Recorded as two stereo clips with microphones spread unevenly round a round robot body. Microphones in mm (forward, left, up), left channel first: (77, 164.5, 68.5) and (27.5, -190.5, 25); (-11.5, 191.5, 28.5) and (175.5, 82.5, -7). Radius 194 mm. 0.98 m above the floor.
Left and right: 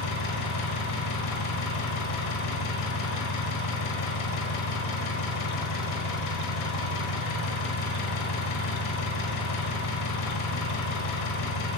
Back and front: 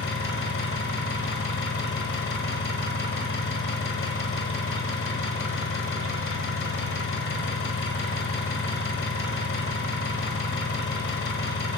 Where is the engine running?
125° left, 5 m.